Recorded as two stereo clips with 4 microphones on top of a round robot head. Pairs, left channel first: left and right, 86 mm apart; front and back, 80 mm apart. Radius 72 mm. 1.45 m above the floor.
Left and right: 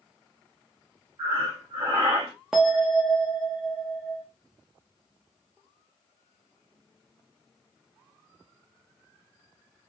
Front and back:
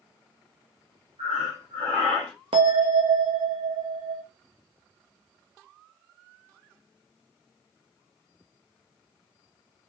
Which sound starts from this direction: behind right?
Breathing, at 1.2 s.